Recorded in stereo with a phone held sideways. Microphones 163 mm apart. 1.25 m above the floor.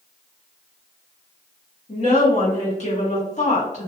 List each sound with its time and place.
1.9 s a woman speaking: 45° left (ahead or behind), 1.1 m